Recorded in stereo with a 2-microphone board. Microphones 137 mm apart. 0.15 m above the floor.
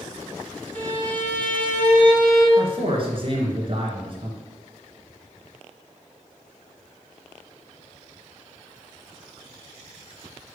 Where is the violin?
10° left (ahead or behind), 2.5 m.